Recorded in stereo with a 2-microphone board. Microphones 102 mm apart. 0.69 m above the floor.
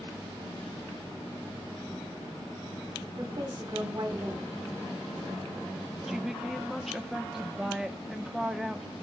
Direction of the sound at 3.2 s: 50° right (ahead or behind).